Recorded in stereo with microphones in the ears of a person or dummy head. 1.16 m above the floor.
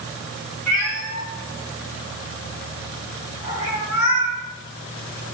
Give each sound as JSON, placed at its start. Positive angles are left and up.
{"t": 0.7, "sound": "a cat meowing", "side_deg": -50, "distance_m": 5.5}